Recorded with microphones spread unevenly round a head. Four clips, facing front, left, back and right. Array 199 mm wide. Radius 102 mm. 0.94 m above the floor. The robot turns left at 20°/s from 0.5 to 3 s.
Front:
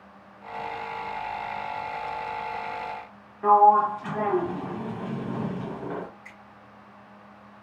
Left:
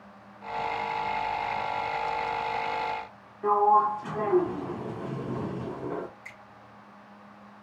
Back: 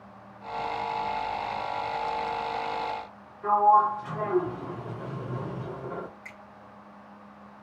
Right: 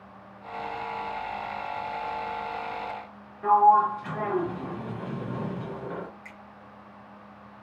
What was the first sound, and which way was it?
A sliding door, 15° right.